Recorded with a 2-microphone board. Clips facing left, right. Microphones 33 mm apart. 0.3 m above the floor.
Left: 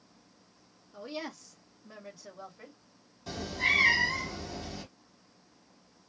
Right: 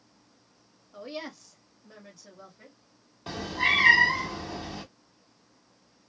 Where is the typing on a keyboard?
I don't hear typing on a keyboard.